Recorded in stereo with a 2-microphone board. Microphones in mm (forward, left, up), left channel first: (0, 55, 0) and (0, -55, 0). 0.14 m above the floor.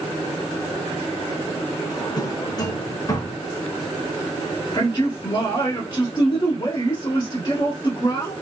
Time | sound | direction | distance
1.9 | a drawer | 35° left (ahead or behind) | 0.6 m
4.7 | a man speaking | 35° left (ahead or behind) | 1.4 m